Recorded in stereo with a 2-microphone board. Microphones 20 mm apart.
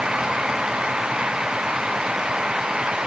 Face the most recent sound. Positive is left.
No sound to turn to.